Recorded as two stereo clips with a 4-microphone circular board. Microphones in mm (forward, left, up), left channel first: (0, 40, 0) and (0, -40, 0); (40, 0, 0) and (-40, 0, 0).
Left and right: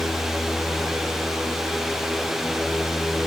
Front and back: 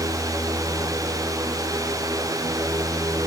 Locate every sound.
Only background noise.